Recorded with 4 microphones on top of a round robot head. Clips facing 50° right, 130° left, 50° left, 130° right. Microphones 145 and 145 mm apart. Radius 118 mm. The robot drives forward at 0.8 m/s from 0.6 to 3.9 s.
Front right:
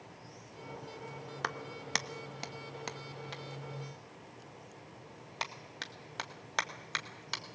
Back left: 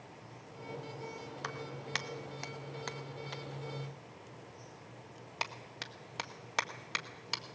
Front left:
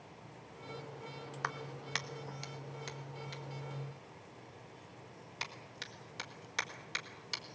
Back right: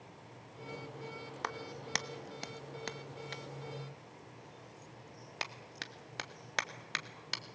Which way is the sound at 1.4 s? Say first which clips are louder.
Front right 3 dB, back right 2 dB; 65° right.